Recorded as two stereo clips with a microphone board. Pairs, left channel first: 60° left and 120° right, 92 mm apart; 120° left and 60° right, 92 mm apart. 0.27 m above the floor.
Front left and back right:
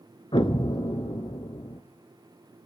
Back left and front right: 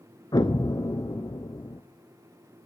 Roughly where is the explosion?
Left.